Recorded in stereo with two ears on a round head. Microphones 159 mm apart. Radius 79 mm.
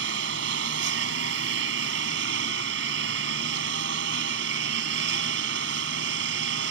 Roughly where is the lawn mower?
Right.